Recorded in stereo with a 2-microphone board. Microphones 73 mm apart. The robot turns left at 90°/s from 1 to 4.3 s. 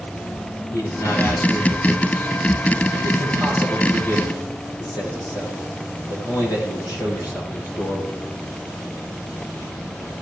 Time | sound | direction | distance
0.7 | a man speaking | 60° left | 7.5 m